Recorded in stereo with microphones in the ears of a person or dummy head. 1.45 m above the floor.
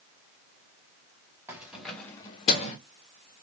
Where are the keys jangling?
15° right (ahead or behind), 1.1 m; by 2.8 s 50° left (ahead or behind), 0.9 m.